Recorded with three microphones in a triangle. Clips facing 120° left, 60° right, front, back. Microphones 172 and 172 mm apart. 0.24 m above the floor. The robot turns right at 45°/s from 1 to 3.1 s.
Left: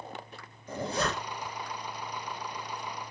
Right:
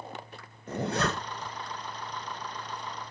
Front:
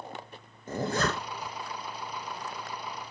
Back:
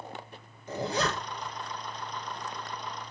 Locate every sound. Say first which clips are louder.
0.7 s a zipper: right 2 dB, front 1 dB; 35° right, 2 m; by 1.5 s 15° right, 2 m